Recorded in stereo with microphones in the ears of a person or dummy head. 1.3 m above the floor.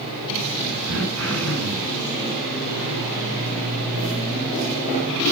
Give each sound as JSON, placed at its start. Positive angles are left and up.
{"t": 0.9, "sound": "throat clearing", "side_deg": -85, "distance_m": 6.0}